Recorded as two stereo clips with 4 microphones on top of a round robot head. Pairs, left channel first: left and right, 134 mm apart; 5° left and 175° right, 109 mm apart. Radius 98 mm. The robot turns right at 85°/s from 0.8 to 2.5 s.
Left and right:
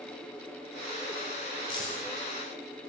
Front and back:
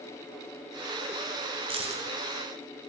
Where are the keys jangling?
150° left, 2 m; by 2.0 s 175° left, 2 m.